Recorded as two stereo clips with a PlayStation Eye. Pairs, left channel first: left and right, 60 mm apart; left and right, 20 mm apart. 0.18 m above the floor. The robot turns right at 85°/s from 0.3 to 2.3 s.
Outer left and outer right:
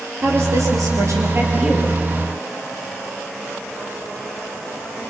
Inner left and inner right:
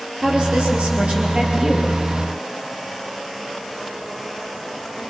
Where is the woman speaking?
130° right, 3.5 m; by 1.9 s 5° left, 3.5 m.